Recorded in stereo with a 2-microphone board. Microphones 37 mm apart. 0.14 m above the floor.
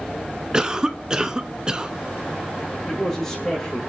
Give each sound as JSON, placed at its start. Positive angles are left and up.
{"t": 0.5, "sound": "a cough", "side_deg": -20, "distance_m": 1.1}
{"t": 2.9, "sound": "a man speaking", "side_deg": 10, "distance_m": 8.0}